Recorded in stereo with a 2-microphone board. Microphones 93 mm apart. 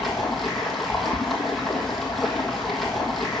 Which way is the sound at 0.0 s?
Centre (ahead or behind).